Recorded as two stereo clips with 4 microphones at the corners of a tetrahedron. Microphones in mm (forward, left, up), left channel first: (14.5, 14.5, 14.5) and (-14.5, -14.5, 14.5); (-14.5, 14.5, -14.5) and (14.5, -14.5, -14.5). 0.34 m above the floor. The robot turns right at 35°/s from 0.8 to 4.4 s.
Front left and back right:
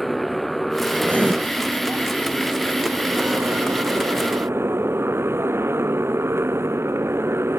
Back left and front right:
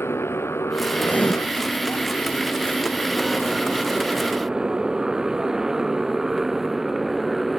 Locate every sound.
0.0 s a motorcycle: 135° left; by 7.6 s 130° right
1.0 s writing: 175° right; by 1.3 s 165° right